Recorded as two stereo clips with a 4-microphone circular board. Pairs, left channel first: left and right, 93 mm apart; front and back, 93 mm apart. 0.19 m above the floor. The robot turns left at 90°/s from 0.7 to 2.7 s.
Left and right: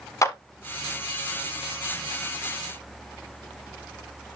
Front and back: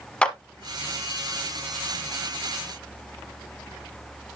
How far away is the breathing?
I don't hear breathing.